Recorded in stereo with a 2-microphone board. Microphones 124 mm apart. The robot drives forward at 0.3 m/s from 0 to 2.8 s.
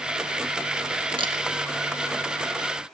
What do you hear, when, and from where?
1.2 s a camera shutter: 40° right (ahead or behind), 1.4 m